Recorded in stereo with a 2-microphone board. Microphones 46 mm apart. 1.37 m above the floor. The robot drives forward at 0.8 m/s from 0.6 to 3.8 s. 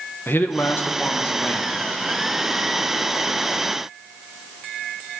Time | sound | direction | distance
0.3 | a man speaking | 50° left (ahead or behind) | 1.3 m